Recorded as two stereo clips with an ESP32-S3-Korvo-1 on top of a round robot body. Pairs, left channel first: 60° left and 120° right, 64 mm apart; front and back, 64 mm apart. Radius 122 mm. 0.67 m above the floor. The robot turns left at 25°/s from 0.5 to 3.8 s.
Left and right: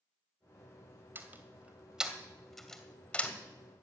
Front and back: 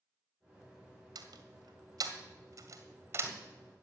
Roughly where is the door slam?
Behind.